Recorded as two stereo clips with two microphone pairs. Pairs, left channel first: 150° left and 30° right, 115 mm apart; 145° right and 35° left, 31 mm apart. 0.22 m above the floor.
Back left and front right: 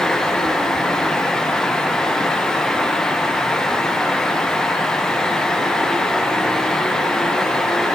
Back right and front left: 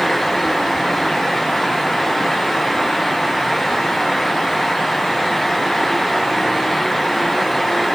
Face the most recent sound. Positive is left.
No sound to turn to.